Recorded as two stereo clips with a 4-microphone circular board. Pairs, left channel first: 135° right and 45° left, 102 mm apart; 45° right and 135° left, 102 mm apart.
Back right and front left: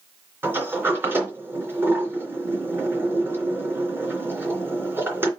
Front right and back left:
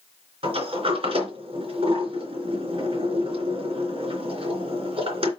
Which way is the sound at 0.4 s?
115° left.